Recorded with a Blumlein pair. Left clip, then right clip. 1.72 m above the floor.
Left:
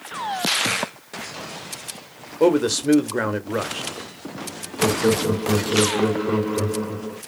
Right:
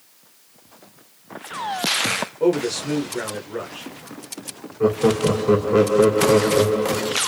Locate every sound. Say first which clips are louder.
2.4 s a man speaking: left 5 dB; 25° left, 0.7 m
4.8 s laughter: right 1 dB; 65° right, 0.8 m